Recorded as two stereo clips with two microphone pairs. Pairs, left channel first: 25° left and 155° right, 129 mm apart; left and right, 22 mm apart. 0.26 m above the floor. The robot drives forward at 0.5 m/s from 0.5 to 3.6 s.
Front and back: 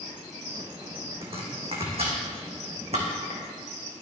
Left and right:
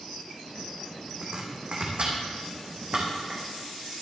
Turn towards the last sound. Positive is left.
turn(degrees=-130)